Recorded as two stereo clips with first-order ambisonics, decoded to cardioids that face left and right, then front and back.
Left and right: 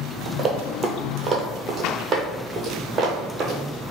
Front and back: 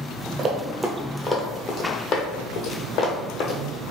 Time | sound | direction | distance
0.4 | running footsteps | 150° right | 0.8 m